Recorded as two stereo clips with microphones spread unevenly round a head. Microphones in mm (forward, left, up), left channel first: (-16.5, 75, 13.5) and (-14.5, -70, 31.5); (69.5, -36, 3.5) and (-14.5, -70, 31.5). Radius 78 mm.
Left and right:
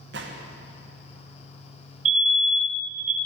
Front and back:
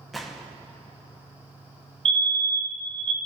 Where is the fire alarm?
125° right, 1.4 m.